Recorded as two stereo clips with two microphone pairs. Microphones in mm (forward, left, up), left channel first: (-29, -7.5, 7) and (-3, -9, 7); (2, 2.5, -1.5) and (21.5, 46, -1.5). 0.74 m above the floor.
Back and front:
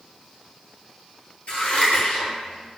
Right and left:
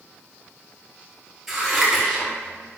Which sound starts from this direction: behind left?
Scissors, at 1.5 s.